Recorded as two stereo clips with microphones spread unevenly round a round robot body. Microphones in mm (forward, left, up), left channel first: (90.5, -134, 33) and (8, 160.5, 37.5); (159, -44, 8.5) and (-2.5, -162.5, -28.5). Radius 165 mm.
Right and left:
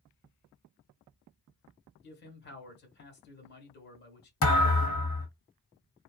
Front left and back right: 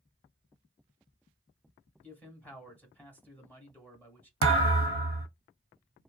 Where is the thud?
140° right, 1.1 m.